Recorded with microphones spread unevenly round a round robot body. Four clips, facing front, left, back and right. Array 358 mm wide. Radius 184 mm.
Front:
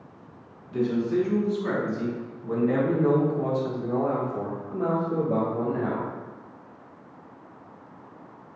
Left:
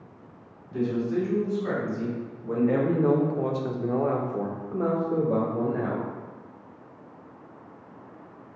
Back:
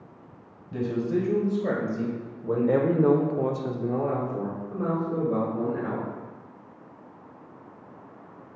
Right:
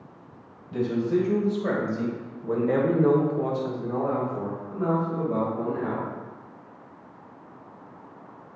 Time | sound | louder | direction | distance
0.7 | a man speaking | right 2 dB, front 2 dB | 140° right | 2.5 m